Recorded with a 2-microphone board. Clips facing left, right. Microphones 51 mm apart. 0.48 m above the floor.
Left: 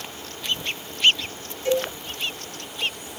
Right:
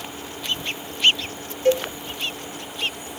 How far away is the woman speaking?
No woman speaking in this recording.